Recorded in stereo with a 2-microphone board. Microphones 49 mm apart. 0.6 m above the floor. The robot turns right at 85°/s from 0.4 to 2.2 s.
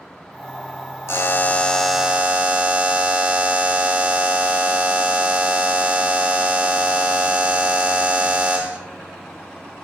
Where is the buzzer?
115° left, 0.8 m; by 8.8 s 150° right, 0.8 m.